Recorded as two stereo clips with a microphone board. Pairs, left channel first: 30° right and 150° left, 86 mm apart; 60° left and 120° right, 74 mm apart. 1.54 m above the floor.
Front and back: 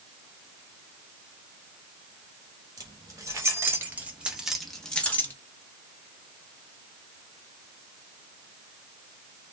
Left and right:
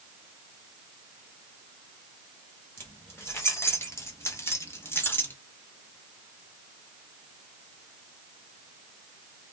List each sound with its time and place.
2.8 s keys jangling: 110° left, 1.4 m; by 5.3 s 20° left, 0.9 m